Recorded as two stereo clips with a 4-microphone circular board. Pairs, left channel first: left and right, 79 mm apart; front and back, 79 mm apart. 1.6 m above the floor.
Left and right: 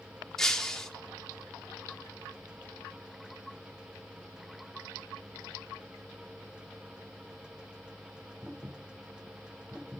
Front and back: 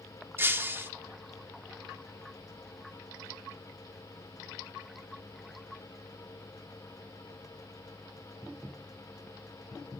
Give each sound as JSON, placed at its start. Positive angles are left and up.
{"t": 0.4, "sound": "breaking glass", "azimuth_deg": 170, "distance_m": 1.2}